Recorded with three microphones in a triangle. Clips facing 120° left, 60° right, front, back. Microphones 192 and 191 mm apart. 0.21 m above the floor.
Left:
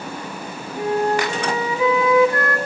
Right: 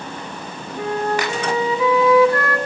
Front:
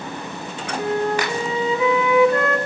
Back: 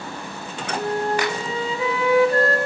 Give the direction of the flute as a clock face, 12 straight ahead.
6 o'clock.